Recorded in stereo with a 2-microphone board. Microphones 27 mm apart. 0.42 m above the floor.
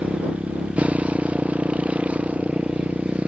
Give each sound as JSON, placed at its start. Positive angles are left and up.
{"t": 0.0, "sound": "a motorcycle", "side_deg": -45}